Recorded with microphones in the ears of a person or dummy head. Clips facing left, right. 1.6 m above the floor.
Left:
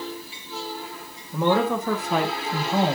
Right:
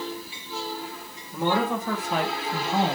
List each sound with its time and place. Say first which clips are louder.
1.3 s a woman speaking: left 3 dB; 70° left (ahead or behind), 1.3 m; by 3.0 s 55° left (ahead or behind), 1.2 m